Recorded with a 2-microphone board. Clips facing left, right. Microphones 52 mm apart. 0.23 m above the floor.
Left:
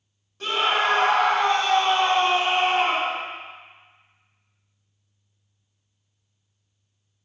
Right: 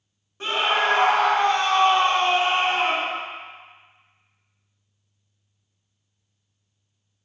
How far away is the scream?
About 1.0 m.